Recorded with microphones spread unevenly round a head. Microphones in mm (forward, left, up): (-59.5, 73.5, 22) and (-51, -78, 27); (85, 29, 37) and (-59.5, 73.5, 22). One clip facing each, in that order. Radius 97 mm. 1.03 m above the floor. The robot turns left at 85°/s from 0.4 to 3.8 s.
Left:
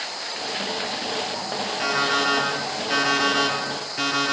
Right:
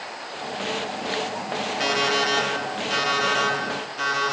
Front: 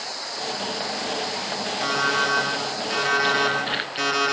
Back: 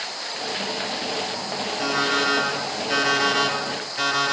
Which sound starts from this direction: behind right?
An alarm clock, at 1.8 s.